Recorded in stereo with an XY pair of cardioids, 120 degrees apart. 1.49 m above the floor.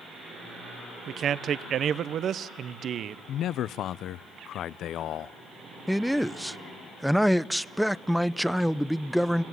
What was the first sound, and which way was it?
A man speaking, 50° right.